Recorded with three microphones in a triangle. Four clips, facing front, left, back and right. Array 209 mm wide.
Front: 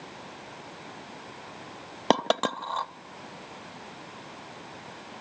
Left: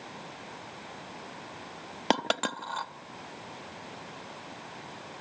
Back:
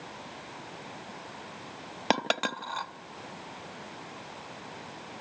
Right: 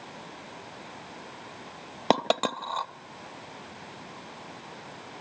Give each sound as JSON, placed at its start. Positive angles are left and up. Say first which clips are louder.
{"t": 2.1, "sound": "a dropped coin", "louder": "right 4 dB, front 5 dB", "azimuth_deg": -40, "distance_m": 0.8}